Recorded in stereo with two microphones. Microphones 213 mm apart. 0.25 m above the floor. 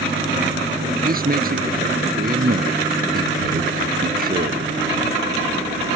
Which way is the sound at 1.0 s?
45° right (ahead or behind).